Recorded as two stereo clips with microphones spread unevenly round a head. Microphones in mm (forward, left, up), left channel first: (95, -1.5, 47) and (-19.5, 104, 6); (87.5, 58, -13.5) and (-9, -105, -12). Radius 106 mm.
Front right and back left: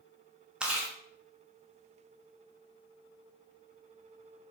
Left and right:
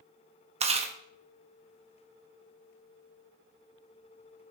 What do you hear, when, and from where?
0.6 s chewing: 120° right, 0.8 m